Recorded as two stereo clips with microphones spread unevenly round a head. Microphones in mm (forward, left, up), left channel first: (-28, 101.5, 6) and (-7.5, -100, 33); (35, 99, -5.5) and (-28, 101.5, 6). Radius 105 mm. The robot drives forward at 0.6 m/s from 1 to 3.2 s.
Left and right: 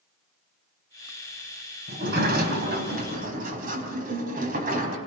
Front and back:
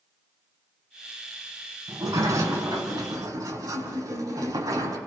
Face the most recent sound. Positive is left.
turn(degrees=-130)